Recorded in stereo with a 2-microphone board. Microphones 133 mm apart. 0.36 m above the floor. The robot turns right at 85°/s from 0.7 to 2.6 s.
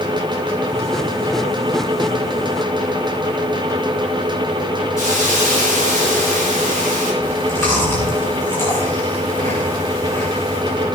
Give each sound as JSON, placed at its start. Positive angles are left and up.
{"t": 5.0, "sound": "a hiss", "side_deg": 25, "distance_m": 5.5}
{"t": 7.2, "sound": "chewing", "side_deg": 20, "distance_m": 7.0}